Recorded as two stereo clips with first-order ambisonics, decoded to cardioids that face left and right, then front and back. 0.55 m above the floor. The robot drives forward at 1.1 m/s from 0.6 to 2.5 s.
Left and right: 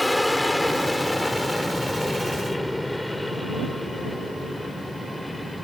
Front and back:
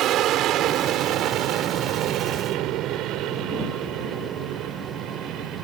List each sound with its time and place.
0.0 s an aircraft: 175° left